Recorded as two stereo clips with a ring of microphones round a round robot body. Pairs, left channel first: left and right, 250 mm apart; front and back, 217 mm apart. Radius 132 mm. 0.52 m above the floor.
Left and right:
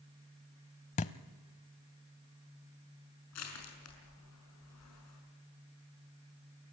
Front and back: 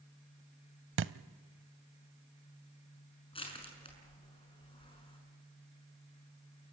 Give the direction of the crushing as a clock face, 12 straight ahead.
10 o'clock.